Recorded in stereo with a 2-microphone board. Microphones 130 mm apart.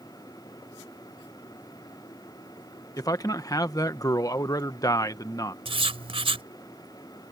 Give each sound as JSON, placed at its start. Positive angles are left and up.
{"t": 3.0, "sound": "a man speaking", "side_deg": 30}
{"t": 5.7, "sound": "writing", "side_deg": -45}